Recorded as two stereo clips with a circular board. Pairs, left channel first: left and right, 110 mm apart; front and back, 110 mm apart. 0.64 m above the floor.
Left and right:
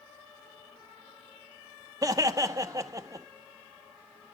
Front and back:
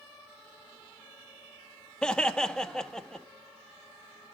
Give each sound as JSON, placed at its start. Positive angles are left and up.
{"t": 2.0, "sound": "laughter", "azimuth_deg": -80, "distance_m": 0.9}